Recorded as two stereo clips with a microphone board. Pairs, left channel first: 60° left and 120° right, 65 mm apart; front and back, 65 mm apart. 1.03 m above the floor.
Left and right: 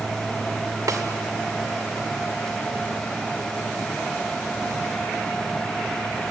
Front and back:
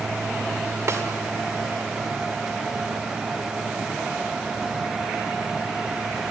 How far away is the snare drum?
About 2 m.